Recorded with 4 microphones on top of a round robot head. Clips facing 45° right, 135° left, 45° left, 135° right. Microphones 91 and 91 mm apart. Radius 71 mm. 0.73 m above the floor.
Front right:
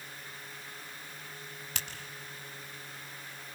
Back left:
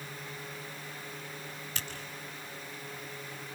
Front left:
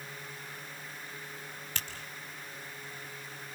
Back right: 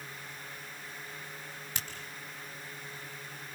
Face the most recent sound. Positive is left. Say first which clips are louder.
# front right 1 dB, front left 1 dB
turn(degrees=-60)